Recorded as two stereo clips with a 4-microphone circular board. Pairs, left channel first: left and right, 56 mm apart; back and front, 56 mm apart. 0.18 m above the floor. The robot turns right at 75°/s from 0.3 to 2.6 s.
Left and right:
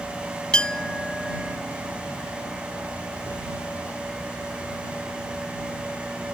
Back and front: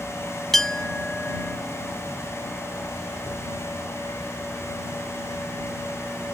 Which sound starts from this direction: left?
A clink, at 0.5 s.